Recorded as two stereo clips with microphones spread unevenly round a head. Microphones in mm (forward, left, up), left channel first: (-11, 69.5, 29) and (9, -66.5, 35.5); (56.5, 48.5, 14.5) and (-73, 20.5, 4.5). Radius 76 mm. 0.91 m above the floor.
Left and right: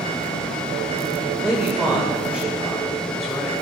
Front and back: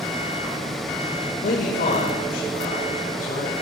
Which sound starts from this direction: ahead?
A man speaking, at 1.4 s.